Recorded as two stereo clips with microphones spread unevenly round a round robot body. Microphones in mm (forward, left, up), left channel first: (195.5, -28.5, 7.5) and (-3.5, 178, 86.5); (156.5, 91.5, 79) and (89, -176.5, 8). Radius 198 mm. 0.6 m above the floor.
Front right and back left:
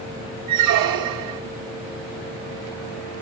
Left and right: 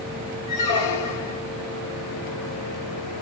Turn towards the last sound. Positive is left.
turn(degrees=120)